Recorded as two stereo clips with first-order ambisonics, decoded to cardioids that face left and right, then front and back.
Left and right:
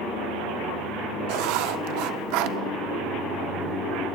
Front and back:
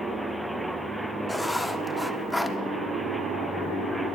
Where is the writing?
85° right, 0.8 m.